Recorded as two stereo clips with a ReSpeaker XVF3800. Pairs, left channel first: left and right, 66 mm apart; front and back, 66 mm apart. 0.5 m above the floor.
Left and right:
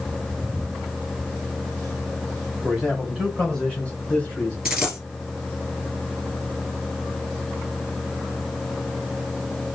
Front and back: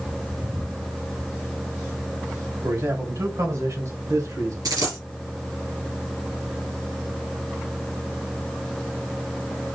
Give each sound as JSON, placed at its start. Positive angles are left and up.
{"t": 2.6, "sound": "a man speaking", "azimuth_deg": 180, "distance_m": 2.5}
{"t": 4.7, "sound": "a dropped coin", "azimuth_deg": -175, "distance_m": 2.5}